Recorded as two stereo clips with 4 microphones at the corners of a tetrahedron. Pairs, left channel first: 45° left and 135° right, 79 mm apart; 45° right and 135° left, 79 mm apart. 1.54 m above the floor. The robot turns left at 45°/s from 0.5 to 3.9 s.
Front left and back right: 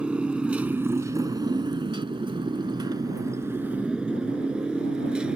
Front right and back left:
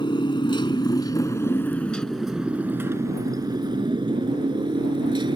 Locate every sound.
0.0 s a motorcycle: 55° right; by 5.4 s 145° left